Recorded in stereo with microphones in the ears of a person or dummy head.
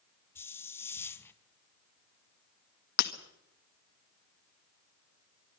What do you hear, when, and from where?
0.3 s a hiss: 10° left (ahead or behind), 1.2 m
3.0 s breaking glass: 55° left (ahead or behind), 1.7 m